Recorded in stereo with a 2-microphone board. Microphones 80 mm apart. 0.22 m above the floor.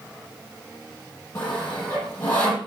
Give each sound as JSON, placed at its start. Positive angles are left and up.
{"t": 1.4, "sound": "sawing", "side_deg": 25, "distance_m": 7.0}